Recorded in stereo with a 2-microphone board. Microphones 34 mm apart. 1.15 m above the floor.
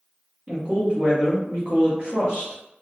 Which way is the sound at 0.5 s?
40° right (ahead or behind).